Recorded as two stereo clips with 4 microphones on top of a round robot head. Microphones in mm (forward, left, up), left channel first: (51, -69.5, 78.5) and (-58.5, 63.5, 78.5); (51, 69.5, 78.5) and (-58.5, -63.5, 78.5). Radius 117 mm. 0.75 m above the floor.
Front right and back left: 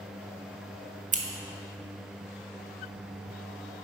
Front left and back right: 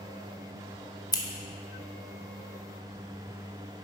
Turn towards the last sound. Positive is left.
turn(degrees=110)